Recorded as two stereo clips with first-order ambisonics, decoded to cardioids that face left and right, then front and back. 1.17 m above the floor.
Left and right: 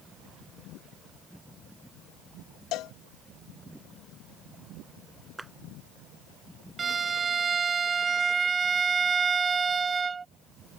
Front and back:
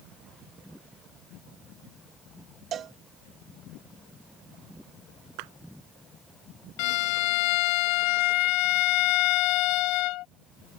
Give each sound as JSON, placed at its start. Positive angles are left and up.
{"t": 2.7, "sound": "a cowbell", "azimuth_deg": 125}
{"t": 5.4, "sound": "a clap", "azimuth_deg": -175}
{"t": 6.8, "sound": "a violin", "azimuth_deg": -15}